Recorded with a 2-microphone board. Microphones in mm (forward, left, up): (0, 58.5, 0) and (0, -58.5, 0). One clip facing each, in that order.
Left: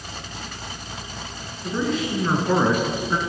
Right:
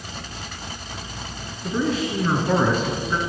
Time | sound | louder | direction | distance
1.6 | a man speaking | right 1 dB | 5° right (ahead or behind) | 1.8 m